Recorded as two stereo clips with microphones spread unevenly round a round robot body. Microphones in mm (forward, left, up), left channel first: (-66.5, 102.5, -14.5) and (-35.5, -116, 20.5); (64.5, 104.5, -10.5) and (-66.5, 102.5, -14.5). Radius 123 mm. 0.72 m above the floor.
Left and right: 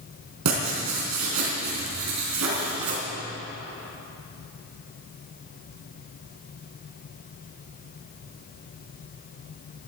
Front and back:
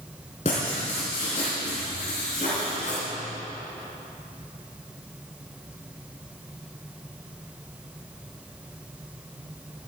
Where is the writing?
60° right, 4 m.